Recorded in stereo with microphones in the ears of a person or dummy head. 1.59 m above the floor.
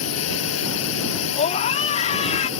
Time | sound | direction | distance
0.0 | a drone | 80° left | ?
1.4 | a scream | 40° left (ahead or behind) | ?